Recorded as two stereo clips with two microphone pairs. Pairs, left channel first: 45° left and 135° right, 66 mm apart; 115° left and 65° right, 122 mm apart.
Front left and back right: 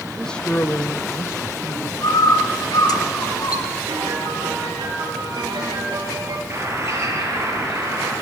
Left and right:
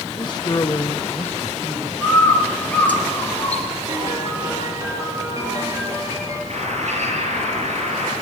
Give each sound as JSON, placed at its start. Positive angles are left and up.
{"t": 0.1, "sound": "a man speaking", "azimuth_deg": 130, "distance_m": 1.2}
{"t": 2.0, "sound": "a bird", "azimuth_deg": 35, "distance_m": 3.5}
{"t": 3.9, "sound": "a piano", "azimuth_deg": -130, "distance_m": 5.0}
{"t": 6.5, "sound": "a bird", "azimuth_deg": -90, "distance_m": 6.5}